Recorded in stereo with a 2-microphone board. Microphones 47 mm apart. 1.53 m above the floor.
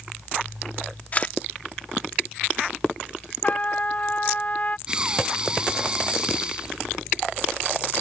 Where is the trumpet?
35° left (ahead or behind).